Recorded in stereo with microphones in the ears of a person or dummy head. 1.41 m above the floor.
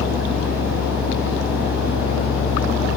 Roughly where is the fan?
Centre.